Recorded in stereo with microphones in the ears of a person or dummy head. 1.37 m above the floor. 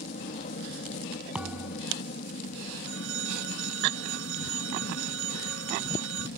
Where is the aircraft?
40° left (ahead or behind).